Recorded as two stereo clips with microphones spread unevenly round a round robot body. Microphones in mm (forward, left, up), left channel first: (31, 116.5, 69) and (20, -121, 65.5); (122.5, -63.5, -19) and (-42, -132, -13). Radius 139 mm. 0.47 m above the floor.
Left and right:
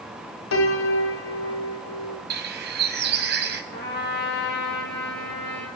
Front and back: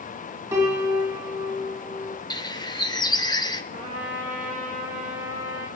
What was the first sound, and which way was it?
A piano, 125° left.